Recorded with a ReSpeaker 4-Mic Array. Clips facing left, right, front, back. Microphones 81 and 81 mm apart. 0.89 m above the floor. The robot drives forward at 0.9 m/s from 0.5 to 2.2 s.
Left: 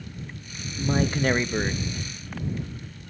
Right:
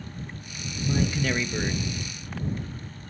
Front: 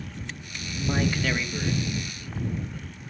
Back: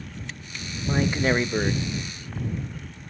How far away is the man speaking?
About 0.5 m.